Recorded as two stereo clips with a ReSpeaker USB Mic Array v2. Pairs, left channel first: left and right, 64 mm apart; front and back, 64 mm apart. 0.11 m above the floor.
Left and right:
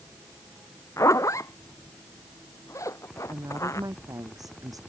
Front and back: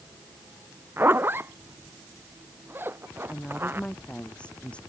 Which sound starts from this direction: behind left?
A zipper, at 1.0 s.